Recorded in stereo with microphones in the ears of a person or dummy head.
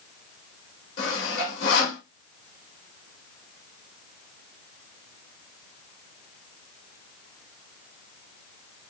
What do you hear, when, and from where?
1.0 s sawing: 70° left (ahead or behind), 5.5 m